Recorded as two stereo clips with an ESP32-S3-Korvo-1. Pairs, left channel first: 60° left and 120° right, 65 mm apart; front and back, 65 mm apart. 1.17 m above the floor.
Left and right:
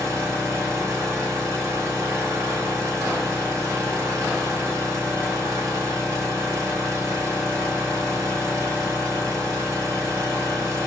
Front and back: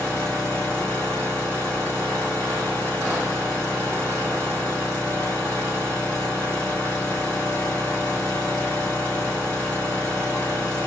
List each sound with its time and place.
0.0 s an engine running: 75° right, 1.6 m